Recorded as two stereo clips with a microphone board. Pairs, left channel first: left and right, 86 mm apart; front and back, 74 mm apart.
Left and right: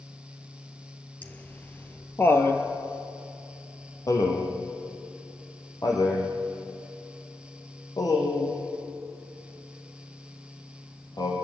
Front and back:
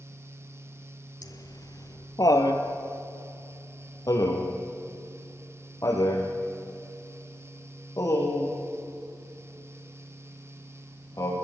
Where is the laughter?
20° left, 2.5 m; by 11.3 s 45° left, 10 m.